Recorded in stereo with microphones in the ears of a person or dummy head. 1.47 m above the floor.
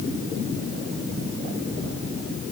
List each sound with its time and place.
Only background noise.